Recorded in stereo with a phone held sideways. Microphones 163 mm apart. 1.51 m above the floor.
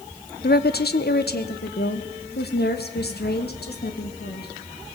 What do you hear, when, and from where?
0.4 s a woman speaking: 75° left (ahead or behind), 1.0 m